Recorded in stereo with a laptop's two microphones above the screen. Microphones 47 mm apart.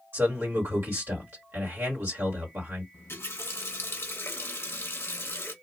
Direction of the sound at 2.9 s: 65° left (ahead or behind).